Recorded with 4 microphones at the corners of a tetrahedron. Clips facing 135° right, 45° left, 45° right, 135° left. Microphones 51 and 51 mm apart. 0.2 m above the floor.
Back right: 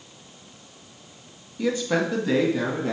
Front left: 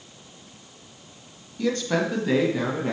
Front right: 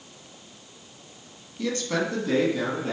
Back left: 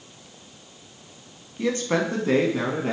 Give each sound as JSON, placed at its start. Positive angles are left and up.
{"t": 1.6, "sound": "a man speaking", "azimuth_deg": 160, "distance_m": 1.0}